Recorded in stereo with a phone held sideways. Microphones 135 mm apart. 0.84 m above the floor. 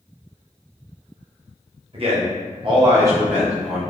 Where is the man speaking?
45° right (ahead or behind), 0.9 m; by 3.8 s 5° right (ahead or behind), 1.2 m.